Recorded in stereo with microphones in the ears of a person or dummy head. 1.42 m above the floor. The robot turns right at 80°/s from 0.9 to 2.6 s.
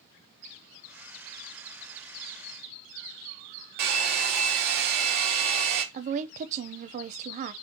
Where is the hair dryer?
55° right (ahead or behind), 1.5 m.